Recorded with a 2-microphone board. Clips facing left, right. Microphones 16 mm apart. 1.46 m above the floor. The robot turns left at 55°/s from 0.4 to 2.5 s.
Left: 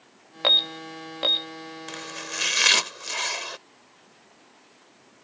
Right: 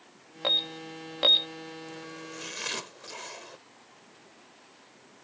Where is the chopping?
95° left; by 3.6 s 60° left.